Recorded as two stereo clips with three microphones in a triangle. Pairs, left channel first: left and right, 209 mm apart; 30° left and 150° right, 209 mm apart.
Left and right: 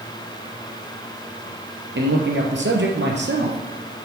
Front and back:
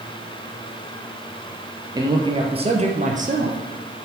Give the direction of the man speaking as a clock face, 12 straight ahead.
3 o'clock.